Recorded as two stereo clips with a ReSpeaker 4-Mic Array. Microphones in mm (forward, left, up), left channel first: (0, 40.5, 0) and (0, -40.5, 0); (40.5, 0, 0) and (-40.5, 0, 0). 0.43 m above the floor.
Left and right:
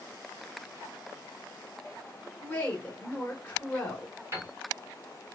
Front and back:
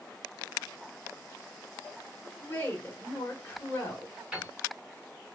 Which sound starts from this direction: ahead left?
A woman speaking, at 2.4 s.